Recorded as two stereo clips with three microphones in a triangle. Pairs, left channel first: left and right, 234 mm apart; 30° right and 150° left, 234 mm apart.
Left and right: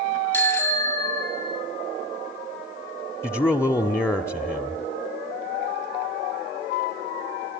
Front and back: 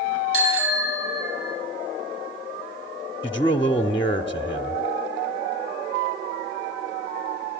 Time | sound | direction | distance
0.3 | a bicycle bell | 170° left | 6 m
3.2 | a man speaking | 20° left | 0.9 m